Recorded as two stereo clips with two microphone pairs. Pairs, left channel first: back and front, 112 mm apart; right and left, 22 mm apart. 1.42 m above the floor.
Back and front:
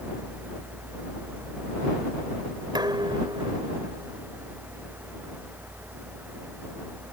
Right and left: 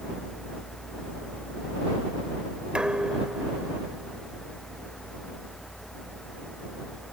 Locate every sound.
2.8 s dishes clattering: 50° left